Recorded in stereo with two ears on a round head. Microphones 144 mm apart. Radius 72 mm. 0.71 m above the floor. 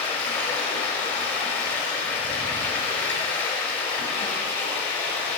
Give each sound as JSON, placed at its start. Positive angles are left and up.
{"t": 0.0, "sound": "running water", "side_deg": 10, "distance_m": 1.4}